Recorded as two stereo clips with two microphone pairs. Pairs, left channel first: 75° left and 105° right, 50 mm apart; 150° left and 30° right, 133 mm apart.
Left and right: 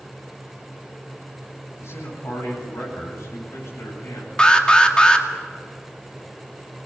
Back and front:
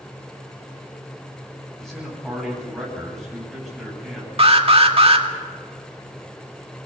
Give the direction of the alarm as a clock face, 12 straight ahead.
12 o'clock.